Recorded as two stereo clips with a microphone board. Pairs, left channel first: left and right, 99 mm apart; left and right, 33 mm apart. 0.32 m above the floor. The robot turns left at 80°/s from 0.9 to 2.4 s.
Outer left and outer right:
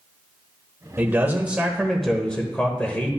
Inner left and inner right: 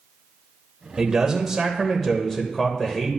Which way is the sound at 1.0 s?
20° right (ahead or behind).